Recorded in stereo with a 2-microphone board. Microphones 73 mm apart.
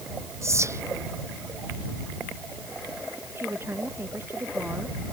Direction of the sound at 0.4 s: 40° right (ahead or behind).